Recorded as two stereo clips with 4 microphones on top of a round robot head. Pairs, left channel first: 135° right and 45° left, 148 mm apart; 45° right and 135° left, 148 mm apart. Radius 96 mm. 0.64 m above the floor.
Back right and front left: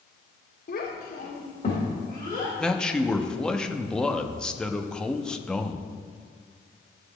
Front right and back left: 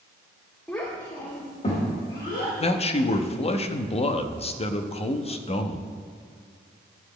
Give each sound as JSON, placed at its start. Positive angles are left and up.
{"t": 0.7, "sound": "a child speaking", "azimuth_deg": -130, "distance_m": 1.7}
{"t": 2.6, "sound": "a man speaking", "azimuth_deg": -50, "distance_m": 0.8}